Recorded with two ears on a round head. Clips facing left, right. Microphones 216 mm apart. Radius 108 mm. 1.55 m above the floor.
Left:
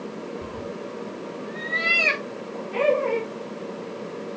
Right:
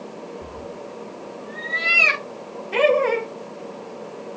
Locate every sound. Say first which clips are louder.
0.4 s a cat meowing: left 2 dB; 35° left (ahead or behind), 1.7 m; by 2.6 s 20° right (ahead or behind), 1.9 m
2.7 s laughter: right 3 dB; 75° right (ahead or behind), 2 m